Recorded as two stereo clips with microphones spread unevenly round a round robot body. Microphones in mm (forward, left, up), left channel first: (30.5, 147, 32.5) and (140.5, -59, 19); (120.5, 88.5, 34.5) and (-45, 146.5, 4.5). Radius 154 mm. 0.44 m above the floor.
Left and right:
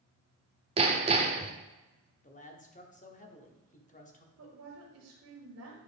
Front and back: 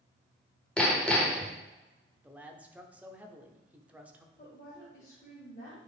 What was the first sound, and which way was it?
Hammering, 115° right.